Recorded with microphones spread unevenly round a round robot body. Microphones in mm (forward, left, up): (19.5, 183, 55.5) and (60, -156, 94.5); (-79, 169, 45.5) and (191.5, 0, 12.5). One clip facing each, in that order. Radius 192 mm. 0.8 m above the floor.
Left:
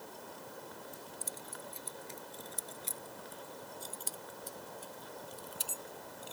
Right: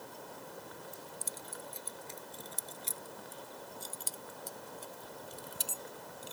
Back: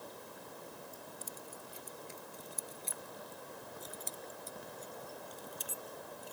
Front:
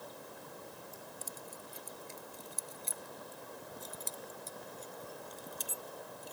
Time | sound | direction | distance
0.9 | keys jangling | 85° right | ?